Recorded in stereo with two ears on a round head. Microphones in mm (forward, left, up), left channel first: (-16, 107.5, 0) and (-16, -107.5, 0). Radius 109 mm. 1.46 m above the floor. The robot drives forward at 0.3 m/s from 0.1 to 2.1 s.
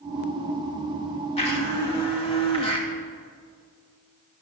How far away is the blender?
About 2.5 m.